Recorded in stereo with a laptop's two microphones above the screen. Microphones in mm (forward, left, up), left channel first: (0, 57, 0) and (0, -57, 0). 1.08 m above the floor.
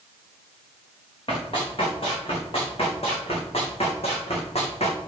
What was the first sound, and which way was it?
Running footsteps, 50° left (ahead or behind).